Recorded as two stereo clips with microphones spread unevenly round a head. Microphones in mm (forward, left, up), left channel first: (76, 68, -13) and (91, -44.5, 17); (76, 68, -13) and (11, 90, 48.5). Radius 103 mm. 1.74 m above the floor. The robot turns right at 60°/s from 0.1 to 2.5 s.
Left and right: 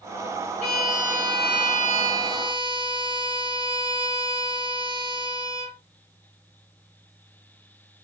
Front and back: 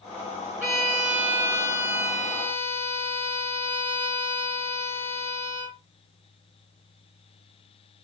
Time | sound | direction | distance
0.6 | a violin | 155° left | 2.5 m